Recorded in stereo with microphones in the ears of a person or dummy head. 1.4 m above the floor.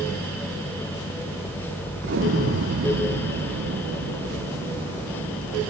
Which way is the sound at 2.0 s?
60° right (ahead or behind).